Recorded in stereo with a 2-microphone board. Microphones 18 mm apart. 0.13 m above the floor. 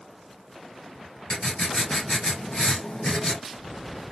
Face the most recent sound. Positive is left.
turn(degrees=50)  # may be behind; listen again after turning